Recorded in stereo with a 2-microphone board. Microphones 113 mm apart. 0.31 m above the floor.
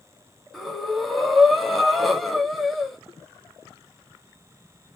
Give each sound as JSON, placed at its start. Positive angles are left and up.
{"t": 0.5, "sound": "breathing", "side_deg": 0, "distance_m": 0.9}